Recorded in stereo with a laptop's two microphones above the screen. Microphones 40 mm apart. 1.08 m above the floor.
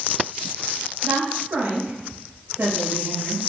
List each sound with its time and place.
1.0 s a woman speaking: 90° right, 4 m